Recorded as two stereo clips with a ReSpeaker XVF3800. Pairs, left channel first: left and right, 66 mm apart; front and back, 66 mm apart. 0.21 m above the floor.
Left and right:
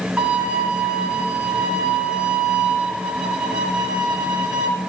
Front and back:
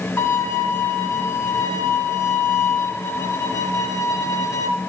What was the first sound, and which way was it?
A violin, 20° right.